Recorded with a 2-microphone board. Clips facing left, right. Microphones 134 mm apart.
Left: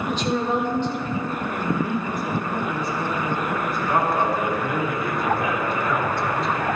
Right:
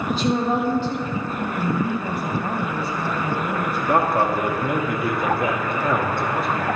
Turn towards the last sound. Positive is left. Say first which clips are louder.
# right 2 dB
turn(degrees=-55)  # may be behind; listen again after turning